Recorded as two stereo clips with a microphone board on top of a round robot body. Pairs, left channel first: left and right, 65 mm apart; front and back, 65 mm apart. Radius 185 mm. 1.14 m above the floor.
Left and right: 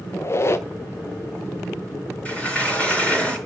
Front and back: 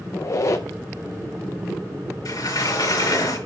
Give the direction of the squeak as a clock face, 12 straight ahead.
11 o'clock.